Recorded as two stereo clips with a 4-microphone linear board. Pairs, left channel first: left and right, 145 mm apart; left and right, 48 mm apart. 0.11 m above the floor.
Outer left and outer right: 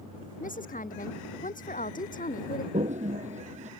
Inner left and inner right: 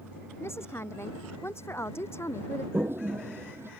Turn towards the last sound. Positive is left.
turn(degrees=-55)  # may be behind; listen again after turning